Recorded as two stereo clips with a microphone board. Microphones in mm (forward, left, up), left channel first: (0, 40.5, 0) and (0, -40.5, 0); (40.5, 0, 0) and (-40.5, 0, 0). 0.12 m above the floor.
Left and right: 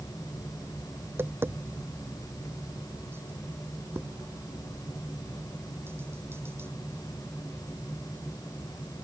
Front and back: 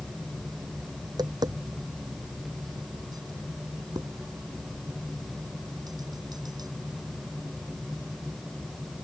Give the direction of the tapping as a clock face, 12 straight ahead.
5 o'clock.